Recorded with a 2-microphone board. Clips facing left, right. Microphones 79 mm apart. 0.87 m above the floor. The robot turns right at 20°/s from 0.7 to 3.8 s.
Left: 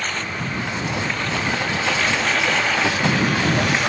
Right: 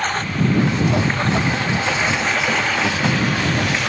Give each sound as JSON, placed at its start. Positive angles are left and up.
{"t": 0.0, "sound": "a lawn mower", "azimuth_deg": -45}